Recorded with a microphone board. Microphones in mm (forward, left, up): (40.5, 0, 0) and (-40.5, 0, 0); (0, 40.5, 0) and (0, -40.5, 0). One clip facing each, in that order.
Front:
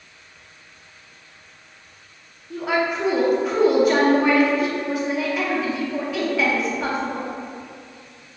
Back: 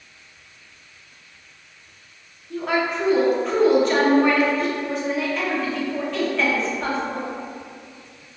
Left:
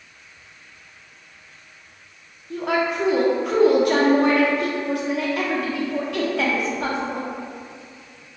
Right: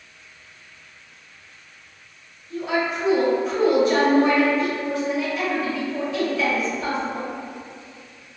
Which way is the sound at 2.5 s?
85° left.